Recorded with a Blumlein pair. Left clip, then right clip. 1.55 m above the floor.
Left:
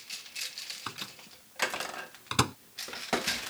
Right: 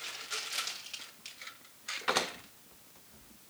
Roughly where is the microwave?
Ahead left.